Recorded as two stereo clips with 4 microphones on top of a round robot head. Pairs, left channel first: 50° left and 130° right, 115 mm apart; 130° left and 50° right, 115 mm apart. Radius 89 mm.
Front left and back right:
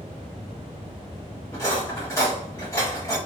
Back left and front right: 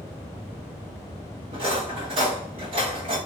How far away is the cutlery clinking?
About 1.5 m.